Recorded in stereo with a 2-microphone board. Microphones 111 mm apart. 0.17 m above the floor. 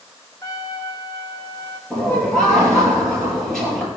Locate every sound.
0.4 s a trumpet: 35° left (ahead or behind), 1.2 m
1.9 s laughter: 5° left (ahead or behind), 5 m